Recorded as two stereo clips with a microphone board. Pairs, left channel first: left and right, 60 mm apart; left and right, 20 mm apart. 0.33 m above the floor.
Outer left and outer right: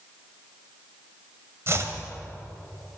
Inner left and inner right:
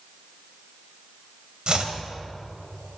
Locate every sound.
1.7 s chopping: 45° right (ahead or behind), 1.9 m